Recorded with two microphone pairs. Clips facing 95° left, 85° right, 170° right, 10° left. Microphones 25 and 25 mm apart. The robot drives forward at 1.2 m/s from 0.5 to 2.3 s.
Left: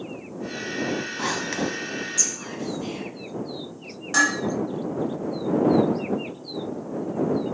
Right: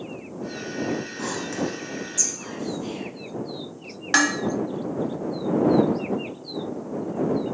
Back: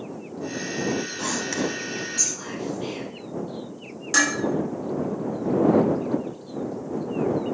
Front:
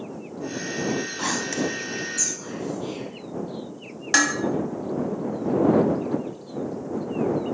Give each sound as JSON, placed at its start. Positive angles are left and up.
{"t": 1.2, "sound": "whispering", "azimuth_deg": 60, "distance_m": 0.6}
{"t": 4.1, "sound": "dishes clattering", "azimuth_deg": -50, "distance_m": 1.4}